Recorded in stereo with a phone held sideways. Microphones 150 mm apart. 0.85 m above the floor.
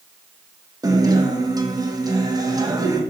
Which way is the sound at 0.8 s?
25° right (ahead or behind).